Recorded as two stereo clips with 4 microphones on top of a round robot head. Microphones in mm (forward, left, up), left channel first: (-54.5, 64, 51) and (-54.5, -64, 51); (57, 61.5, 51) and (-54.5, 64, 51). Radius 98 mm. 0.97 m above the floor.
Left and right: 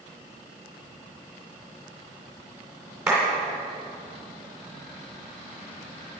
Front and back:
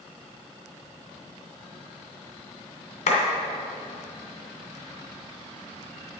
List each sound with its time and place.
3.1 s a clap: 5° right, 2.5 m